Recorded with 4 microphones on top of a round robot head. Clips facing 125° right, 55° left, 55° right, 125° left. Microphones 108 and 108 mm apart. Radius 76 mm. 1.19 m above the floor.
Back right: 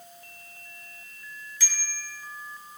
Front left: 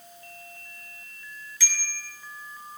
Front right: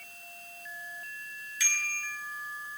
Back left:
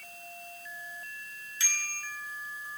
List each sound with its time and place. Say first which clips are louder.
1.6 s a bicycle bell: front left 3 dB, front right 2 dB; 65° left, 8 m